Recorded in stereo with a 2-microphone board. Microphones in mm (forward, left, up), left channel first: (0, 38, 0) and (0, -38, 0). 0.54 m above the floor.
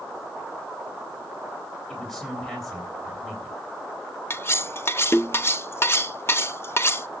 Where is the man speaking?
5° left (ahead or behind), 3.5 m.